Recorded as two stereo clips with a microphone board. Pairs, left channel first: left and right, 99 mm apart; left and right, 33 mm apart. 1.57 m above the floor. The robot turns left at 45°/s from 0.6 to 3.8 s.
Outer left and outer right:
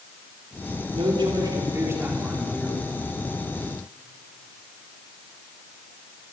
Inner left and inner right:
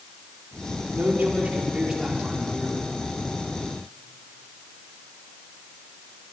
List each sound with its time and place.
0.9 s a man speaking: 110° right, 5 m; by 2.9 s 165° left, 5 m